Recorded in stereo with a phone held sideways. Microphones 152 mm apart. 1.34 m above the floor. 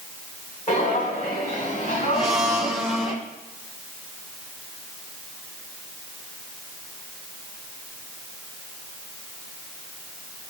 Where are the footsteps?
50° left (ahead or behind), 4.5 m; by 3.1 s 45° left (ahead or behind), 6.5 m.